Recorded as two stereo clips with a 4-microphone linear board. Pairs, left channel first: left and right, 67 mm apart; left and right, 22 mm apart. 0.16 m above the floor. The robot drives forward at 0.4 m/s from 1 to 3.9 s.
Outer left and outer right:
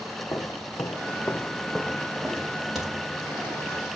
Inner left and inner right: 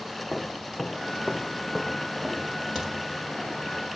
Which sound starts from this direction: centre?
A crack, at 2.8 s.